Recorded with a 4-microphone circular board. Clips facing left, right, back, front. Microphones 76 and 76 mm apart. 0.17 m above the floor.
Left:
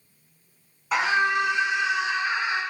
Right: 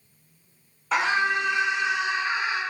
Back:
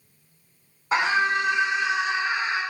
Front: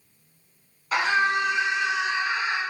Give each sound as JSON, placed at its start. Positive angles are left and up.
{"t": 0.9, "sound": "a scream", "azimuth_deg": 175, "distance_m": 1.3}